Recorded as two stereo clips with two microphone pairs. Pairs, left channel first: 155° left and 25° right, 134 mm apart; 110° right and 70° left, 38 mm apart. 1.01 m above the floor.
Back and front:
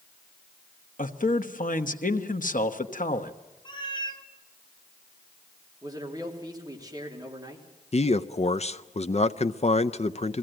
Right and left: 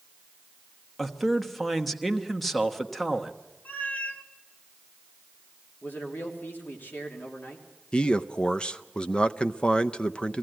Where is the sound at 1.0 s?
160° left, 1.1 m.